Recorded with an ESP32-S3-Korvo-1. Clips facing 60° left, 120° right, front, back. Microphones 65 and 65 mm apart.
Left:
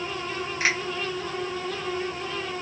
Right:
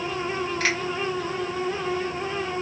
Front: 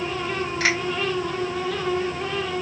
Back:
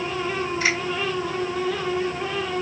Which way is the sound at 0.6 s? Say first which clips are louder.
Left 1 dB, front 1 dB; 15° right.